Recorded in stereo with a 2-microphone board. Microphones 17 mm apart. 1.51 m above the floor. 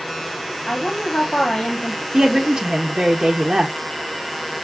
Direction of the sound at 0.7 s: 80° left.